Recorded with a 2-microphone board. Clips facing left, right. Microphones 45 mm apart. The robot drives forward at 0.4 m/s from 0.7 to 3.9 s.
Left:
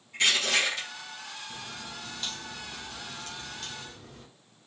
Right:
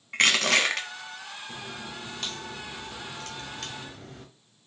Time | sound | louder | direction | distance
0.1 | crushing | right 4 dB | 70° right (ahead or behind) | 0.9 m
1.5 | a crack | right 2 dB | 55° right (ahead or behind) | 1.8 m